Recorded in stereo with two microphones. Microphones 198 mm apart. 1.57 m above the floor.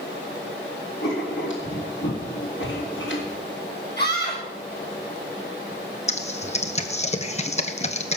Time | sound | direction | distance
1.0 | writing | 75° left (ahead or behind) | 4 m
4.0 | a scream | 55° left (ahead or behind) | 8 m
6.1 | typing on a keyboard | 35° left (ahead or behind) | 1.1 m